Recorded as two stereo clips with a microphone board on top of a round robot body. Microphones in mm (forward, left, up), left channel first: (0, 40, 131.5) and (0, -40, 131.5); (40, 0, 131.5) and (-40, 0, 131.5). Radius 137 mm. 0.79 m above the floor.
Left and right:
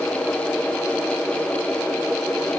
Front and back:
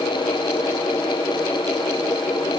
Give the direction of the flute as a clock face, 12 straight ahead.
I don't hear a flute.